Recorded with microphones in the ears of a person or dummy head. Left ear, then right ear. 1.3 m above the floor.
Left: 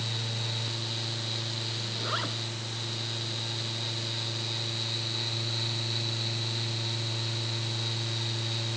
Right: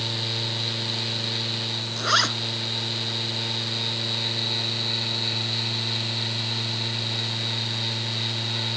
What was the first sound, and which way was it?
A zipper, 70° right (ahead or behind).